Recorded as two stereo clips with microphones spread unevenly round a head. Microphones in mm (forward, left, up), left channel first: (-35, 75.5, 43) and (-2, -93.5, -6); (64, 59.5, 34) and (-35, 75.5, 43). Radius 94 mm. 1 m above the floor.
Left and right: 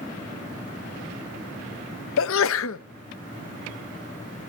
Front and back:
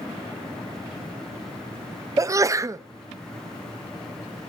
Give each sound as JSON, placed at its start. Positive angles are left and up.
{"t": 2.2, "sound": "a sneeze", "azimuth_deg": 110, "distance_m": 0.8}